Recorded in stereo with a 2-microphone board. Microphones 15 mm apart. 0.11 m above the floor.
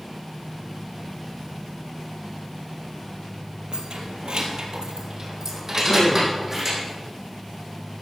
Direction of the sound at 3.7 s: 65° right (ahead or behind).